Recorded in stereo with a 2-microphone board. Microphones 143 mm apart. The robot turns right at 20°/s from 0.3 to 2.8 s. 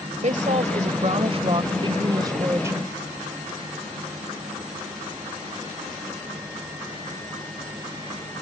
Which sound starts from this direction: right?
A woman speaking, at 0.2 s.